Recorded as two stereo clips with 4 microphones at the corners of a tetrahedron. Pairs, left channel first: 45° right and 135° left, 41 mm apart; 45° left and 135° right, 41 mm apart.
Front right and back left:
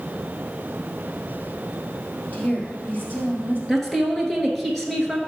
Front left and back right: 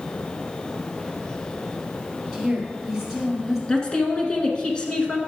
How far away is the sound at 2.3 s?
About 2.5 m.